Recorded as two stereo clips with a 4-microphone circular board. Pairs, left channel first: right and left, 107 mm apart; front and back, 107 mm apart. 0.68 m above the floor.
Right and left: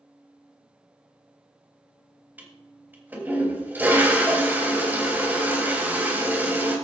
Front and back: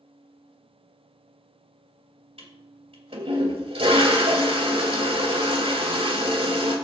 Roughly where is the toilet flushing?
Behind.